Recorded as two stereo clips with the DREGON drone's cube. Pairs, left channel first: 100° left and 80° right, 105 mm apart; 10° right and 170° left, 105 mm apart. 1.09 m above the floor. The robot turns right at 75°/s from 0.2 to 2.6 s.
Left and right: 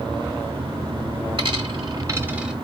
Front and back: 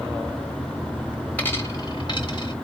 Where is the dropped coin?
80° right, 1.1 m; by 2.5 s 5° left, 1.1 m.